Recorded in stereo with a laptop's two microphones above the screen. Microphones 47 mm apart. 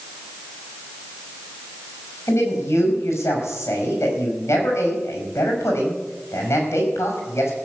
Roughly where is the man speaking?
Left.